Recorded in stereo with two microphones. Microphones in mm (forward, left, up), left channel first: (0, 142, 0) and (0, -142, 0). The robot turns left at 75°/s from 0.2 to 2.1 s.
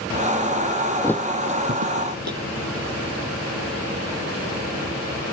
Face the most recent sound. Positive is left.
turn(degrees=-70)  # may be behind; listen again after turning